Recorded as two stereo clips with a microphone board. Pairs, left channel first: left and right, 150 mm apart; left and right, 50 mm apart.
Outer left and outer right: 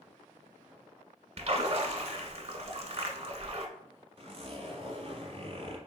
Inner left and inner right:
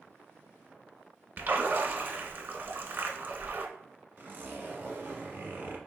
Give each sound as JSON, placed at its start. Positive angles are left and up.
{"t": 1.4, "sound": "a splash", "side_deg": -45, "distance_m": 0.5}
{"t": 4.2, "sound": "a zipper", "side_deg": -45, "distance_m": 1.0}